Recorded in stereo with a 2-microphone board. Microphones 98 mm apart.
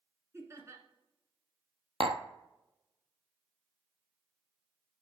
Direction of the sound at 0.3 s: 30° right (ahead or behind).